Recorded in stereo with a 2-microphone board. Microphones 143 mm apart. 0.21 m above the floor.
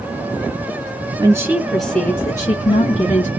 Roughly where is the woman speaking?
Right.